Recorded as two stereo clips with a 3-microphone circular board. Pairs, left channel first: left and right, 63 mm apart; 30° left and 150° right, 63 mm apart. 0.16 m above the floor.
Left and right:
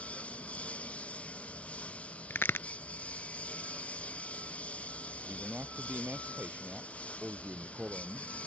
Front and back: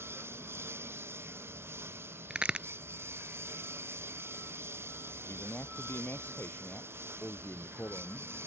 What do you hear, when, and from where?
0.0 s a lawn mower: 160° left
2.3 s a crack: 140° left
5.2 s a man speaking: 25° right